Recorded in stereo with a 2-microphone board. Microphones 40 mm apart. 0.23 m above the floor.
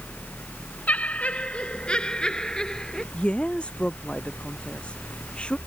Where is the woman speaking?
25° left (ahead or behind).